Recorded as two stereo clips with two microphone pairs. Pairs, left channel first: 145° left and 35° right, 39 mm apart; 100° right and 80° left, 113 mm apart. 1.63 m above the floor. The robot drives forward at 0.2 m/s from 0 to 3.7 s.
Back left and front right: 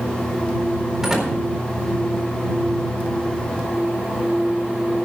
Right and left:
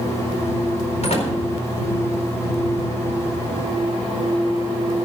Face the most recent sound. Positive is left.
turn(degrees=-125)